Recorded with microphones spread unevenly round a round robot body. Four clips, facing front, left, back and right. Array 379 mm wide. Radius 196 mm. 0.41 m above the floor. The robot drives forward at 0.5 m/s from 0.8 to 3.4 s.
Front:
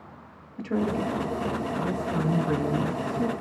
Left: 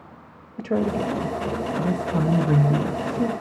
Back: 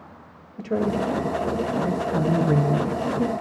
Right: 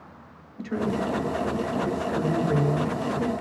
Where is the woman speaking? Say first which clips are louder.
Left 4 dB, back 3 dB; 120° left, 1.8 m; by 3.3 s 145° left, 2.5 m.